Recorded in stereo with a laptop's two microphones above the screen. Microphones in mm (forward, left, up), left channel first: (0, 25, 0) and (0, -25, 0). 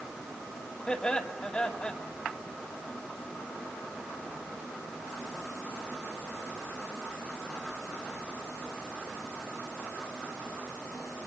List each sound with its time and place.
0.9 s laughter: 20° left (ahead or behind), 2 m